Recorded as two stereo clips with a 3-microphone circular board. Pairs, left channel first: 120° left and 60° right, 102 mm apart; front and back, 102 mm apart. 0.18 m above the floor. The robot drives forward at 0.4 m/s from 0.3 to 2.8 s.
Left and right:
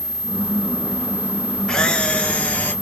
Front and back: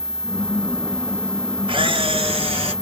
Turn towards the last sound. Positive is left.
turn(degrees=-170)